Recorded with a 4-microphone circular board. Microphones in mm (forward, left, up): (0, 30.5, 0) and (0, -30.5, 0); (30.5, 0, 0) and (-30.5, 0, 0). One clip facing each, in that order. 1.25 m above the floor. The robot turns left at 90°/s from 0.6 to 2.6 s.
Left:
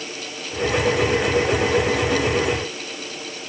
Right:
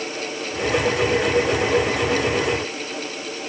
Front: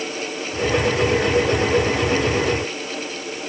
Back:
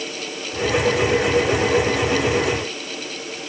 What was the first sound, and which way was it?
Only background noise.